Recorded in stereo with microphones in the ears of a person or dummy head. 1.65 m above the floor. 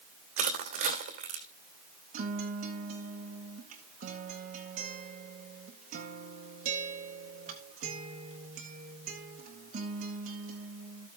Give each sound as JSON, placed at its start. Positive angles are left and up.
{"t": 0.4, "sound": "crushing", "side_deg": -35, "distance_m": 2.0}
{"t": 2.1, "sound": "a guitar", "side_deg": -35, "distance_m": 1.1}